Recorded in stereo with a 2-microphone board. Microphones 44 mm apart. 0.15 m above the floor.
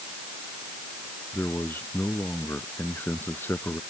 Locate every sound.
1.3 s a man speaking: 55° left (ahead or behind)